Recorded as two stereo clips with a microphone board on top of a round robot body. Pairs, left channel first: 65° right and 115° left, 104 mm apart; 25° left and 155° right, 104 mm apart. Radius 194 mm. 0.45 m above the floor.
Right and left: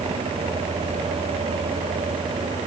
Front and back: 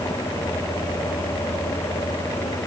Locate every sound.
Only background noise.